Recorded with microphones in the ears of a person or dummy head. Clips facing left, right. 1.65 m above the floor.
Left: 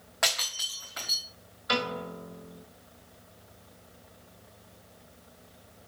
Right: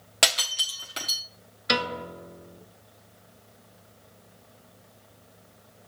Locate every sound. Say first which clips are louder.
0.2 s breaking glass: right 4 dB; 35° right (ahead or behind), 1.3 m
1.7 s a piano: right 2 dB; 35° right (ahead or behind), 1.9 m